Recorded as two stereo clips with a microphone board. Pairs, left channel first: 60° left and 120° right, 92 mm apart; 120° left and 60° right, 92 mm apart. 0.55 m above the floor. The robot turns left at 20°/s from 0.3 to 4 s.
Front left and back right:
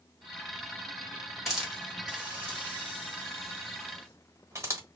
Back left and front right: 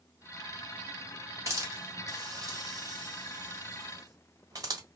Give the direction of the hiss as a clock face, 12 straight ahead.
1 o'clock.